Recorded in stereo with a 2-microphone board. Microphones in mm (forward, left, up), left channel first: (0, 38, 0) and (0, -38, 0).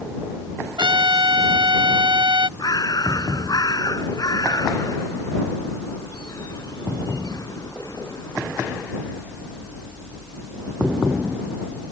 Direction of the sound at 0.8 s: 75° right (ahead or behind).